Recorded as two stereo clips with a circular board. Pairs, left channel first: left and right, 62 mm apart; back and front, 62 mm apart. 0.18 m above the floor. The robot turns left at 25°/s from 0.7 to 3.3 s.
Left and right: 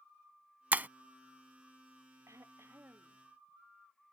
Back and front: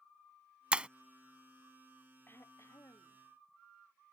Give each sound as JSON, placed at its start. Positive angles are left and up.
{"t": 0.7, "sound": "breaking glass", "azimuth_deg": -55}
{"t": 2.3, "sound": "throat clearing", "azimuth_deg": -130}